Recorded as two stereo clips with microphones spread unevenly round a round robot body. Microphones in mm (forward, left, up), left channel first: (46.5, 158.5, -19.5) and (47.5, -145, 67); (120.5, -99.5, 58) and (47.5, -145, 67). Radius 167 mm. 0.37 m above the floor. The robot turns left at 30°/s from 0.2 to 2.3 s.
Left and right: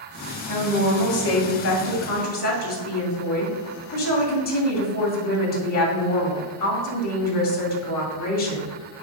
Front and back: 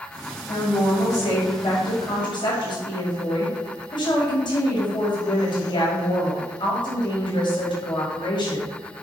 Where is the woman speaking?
95° left, 2 m; by 8.7 s 45° left, 2 m.